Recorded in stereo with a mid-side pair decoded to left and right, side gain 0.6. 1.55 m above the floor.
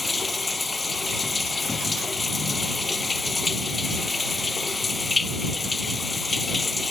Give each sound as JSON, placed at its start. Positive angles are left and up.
{"t": 0.0, "sound": "running water", "azimuth_deg": 20}